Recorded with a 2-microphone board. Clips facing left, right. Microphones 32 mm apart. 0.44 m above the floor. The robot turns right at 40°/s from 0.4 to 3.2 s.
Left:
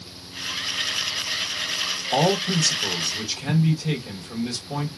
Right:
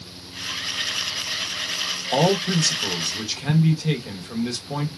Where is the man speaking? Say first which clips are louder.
Right 1 dB; 25° right (ahead or behind), 0.8 m; by 4.9 s 15° right (ahead or behind), 0.8 m.